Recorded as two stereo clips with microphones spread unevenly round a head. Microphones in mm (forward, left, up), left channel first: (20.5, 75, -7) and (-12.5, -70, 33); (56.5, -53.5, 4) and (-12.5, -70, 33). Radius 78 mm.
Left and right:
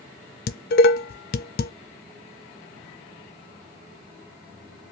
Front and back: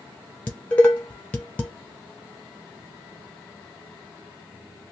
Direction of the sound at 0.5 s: 85° left.